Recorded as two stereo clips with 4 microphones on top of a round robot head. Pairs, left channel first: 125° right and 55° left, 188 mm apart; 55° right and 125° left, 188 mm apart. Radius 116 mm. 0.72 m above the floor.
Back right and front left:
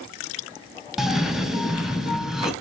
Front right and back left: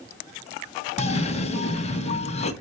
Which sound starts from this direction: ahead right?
A cough, at 1.0 s.